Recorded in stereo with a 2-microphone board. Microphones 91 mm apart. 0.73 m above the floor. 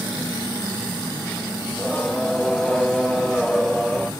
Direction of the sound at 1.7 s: 5° left (ahead or behind).